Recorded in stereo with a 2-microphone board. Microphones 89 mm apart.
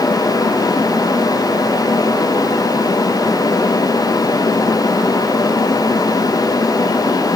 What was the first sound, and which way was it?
Only background noise.